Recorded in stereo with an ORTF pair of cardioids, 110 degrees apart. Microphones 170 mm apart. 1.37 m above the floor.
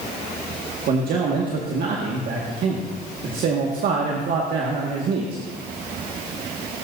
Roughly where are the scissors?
No scissors in this recording.